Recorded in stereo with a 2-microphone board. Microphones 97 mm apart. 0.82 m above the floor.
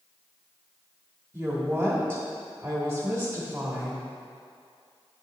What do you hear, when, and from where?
1.3 s a woman speaking: 15° right (ahead or behind), 1.5 m